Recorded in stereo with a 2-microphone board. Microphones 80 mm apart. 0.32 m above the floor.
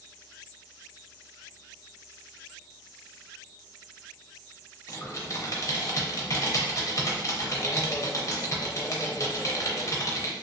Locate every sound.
4.9 s typing on a keyboard: 40° left (ahead or behind), 0.6 m